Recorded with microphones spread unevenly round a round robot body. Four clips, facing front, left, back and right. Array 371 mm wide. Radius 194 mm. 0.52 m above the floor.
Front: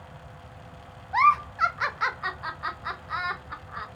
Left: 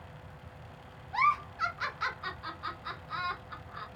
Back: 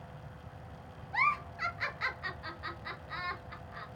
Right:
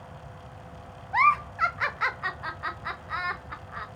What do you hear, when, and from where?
1.1 s a giggle: 45° right, 0.5 m